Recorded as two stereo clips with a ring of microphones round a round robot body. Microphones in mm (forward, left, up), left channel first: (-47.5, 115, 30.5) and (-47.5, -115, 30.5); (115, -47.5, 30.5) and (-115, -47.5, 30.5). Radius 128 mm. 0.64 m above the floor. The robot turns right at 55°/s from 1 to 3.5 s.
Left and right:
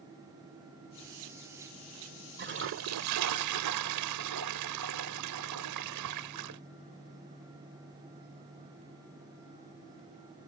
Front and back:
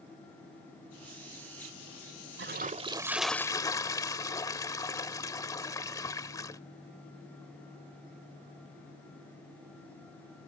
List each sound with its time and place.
2.4 s a toilet flushing: 135° right; by 6.6 s 75° right